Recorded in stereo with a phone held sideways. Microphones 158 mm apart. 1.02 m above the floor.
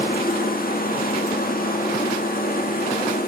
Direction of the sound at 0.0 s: 65° left (ahead or behind).